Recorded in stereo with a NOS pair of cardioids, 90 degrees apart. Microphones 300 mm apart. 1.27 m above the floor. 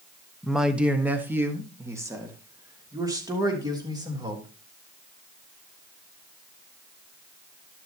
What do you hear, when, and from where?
0.4 s a man speaking: straight ahead, 1.2 m; by 4.5 s 15° right, 4 m